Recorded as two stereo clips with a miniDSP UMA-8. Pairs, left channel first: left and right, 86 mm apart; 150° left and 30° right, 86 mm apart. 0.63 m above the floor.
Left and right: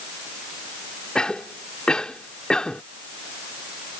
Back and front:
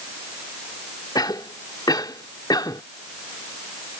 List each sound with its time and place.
1.1 s a cough: 170° left